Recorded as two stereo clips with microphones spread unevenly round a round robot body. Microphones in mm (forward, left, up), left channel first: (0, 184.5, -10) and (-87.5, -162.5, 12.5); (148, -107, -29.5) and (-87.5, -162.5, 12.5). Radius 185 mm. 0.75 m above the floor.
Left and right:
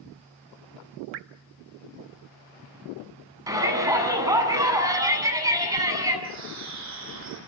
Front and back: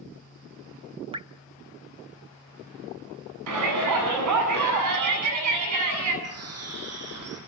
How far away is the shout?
About 8.5 m.